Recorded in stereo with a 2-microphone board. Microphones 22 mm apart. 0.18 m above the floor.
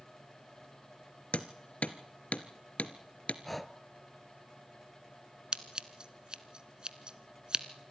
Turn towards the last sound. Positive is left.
turn(degrees=-45)  # may be behind; listen again after turning